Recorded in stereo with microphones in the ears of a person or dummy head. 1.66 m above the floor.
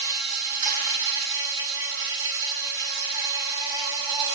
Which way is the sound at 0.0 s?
20° right (ahead or behind).